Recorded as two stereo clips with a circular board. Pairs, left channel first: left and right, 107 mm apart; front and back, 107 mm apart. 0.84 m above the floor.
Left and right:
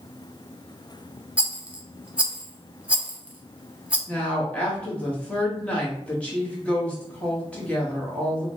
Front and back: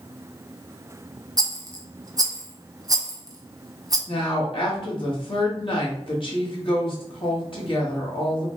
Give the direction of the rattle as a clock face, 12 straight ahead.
5 o'clock.